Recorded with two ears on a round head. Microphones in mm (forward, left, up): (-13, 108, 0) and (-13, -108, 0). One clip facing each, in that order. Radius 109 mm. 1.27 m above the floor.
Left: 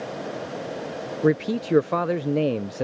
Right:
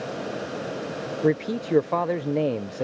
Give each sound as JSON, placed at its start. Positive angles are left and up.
{"t": 1.2, "sound": "a man speaking", "side_deg": 10}